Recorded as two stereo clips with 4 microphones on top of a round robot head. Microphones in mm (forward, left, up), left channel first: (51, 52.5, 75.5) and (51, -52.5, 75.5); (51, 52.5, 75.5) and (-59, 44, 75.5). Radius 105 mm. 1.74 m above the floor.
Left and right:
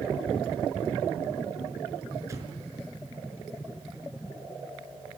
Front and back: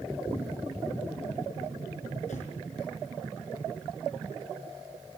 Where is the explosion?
30° right, 5 m.